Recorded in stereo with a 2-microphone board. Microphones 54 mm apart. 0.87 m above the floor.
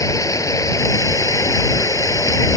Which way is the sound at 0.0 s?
85° left.